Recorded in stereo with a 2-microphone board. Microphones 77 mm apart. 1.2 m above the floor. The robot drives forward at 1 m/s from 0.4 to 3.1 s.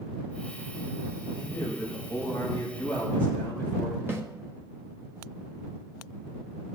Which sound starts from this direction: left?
A man speaking, at 1.4 s.